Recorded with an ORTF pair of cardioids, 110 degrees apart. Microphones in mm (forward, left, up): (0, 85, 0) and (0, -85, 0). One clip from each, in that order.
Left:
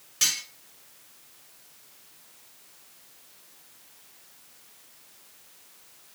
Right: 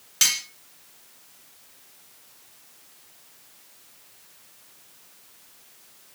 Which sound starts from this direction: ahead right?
Cutlery clinking, at 0.2 s.